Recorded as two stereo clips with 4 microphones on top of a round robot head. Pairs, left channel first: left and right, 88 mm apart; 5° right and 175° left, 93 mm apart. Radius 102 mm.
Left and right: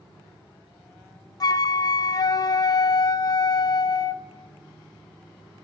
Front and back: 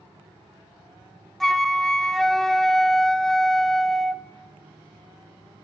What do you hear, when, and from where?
1.4 s a flute: 80° left, 0.5 m